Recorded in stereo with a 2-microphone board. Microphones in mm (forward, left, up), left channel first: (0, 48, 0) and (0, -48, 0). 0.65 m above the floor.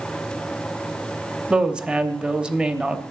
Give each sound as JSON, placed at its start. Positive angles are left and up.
{"t": 1.5, "sound": "a woman speaking", "side_deg": -10, "distance_m": 0.8}